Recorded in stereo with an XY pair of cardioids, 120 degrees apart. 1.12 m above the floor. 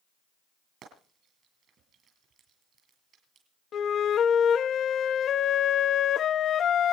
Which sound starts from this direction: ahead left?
A flute, at 3.7 s.